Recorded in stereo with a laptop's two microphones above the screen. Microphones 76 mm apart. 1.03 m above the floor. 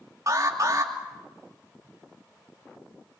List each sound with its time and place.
0.3 s an alarm: 45° right (ahead or behind), 3 m